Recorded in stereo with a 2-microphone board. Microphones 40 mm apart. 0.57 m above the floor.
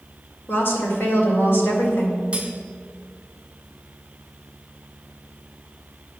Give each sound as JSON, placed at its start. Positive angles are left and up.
{"t": 0.5, "sound": "a woman speaking", "side_deg": 60, "distance_m": 2.0}
{"t": 2.3, "sound": "cutlery clinking", "side_deg": -25, "distance_m": 1.4}